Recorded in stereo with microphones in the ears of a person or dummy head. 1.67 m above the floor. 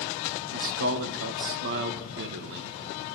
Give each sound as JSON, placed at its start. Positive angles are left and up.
{"t": 0.5, "sound": "a man speaking", "side_deg": -60, "distance_m": 1.1}